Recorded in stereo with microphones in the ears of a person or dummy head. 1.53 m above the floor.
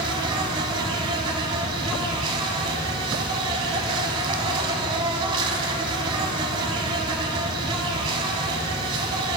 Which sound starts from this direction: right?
An insect, at 0.0 s.